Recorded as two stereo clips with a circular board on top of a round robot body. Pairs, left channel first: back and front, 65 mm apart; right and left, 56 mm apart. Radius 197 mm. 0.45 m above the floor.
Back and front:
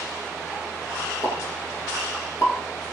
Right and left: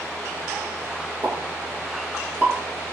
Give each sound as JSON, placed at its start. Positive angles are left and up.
{"t": 1.2, "sound": "a pop", "azimuth_deg": 150, "distance_m": 3.5}